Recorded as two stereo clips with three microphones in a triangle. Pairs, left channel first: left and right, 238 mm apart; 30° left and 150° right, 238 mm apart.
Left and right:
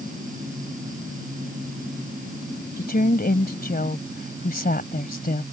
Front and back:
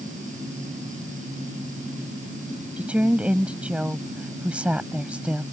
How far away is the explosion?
No explosion in this recording.